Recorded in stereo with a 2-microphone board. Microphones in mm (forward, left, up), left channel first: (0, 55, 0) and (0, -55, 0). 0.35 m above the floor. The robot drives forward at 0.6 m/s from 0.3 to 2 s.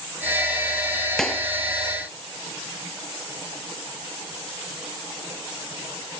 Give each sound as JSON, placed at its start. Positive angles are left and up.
{"t": 1.2, "sound": "a clap", "side_deg": 5}